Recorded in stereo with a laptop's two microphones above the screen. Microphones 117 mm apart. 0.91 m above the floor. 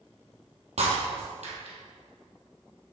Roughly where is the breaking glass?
Right.